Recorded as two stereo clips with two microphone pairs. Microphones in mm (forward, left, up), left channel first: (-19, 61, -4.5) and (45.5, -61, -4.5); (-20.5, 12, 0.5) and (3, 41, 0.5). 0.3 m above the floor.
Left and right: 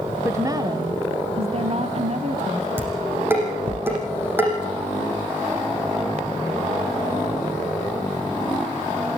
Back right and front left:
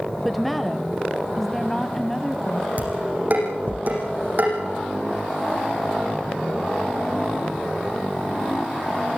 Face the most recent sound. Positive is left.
turn(degrees=10)